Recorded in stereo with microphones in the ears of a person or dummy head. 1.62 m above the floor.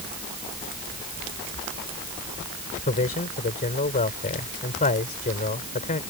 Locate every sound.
2.9 s a man speaking: 35° left (ahead or behind)